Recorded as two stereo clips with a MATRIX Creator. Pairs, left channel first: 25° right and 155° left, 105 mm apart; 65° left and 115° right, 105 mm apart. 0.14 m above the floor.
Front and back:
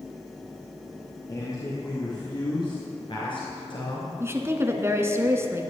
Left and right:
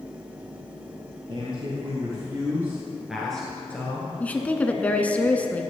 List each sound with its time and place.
1.3 s a man speaking: 80° right, 2.5 m; by 4.1 s 10° left, 2 m
4.2 s a woman speaking: 130° left, 1.2 m